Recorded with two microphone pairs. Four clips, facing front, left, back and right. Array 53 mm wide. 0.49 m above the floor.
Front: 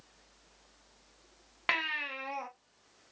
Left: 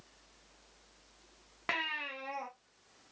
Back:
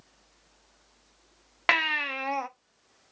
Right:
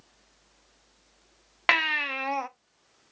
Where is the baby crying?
125° right, 0.5 m.